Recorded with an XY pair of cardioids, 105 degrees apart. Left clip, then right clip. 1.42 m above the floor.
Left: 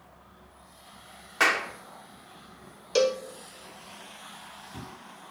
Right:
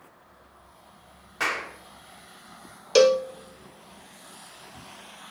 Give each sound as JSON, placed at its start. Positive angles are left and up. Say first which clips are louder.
{"t": 1.4, "sound": "a clap", "louder": "left 4 dB", "azimuth_deg": 45, "distance_m": 1.6}
{"t": 3.0, "sound": "a cowbell", "louder": "right 7 dB", "azimuth_deg": -40, "distance_m": 0.5}